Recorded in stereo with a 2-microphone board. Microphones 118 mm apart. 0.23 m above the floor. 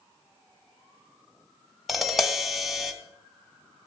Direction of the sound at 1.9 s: Centre (ahead or behind).